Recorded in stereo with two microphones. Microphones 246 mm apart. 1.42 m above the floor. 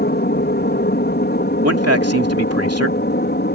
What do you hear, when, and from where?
0.0 s an aircraft: 45° left (ahead or behind)
1.6 s a man speaking: 80° right